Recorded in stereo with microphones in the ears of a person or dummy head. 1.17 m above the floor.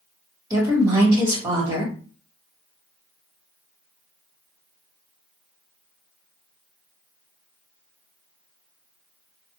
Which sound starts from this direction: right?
A woman speaking, at 0.5 s.